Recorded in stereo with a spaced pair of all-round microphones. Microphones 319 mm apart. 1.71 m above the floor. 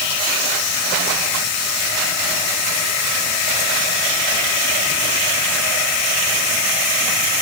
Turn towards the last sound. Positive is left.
No sound to turn to.